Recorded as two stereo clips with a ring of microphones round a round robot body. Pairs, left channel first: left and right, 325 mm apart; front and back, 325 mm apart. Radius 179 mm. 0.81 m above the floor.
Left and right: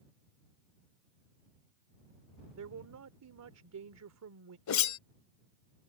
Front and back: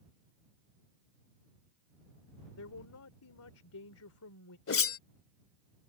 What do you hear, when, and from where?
2.6 s a man speaking: 50° right
4.7 s a whoosh: 50° left